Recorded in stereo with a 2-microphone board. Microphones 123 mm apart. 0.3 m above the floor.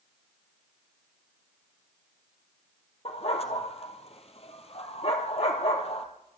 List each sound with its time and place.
3.0 s a dog barking: 55° left (ahead or behind), 2 m